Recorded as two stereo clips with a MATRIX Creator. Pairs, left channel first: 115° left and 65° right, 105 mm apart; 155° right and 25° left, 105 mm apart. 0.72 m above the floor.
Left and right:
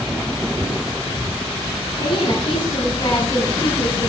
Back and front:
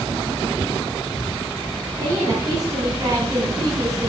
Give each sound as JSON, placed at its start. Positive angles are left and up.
{"t": 2.0, "sound": "a woman speaking", "azimuth_deg": 70, "distance_m": 4.5}